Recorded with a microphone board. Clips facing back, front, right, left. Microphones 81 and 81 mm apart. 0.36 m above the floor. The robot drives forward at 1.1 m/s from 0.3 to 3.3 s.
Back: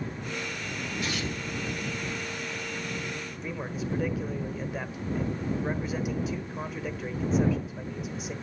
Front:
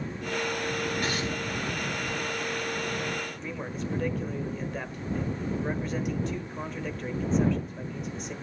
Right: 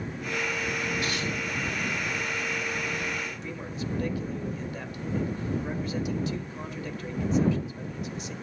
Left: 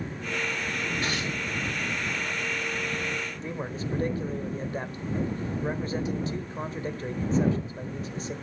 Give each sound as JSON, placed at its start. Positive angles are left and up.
{"t": 1.0, "sound": "tearing paper", "azimuth_deg": 40, "distance_m": 6.5}
{"t": 3.4, "sound": "a man speaking", "azimuth_deg": 95, "distance_m": 1.3}